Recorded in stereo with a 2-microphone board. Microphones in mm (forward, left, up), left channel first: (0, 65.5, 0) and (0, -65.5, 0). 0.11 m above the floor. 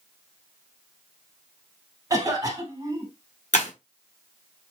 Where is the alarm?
No alarm in this recording.